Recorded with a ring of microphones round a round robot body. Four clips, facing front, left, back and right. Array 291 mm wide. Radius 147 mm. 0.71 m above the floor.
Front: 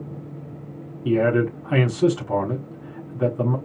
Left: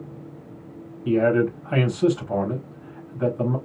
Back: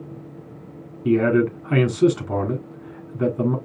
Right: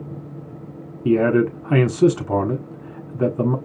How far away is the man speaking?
About 1.8 m.